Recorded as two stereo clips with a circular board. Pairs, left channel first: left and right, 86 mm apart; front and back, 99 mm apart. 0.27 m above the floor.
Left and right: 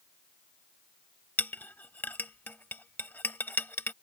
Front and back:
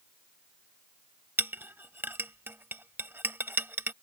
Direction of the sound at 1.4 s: 135° left.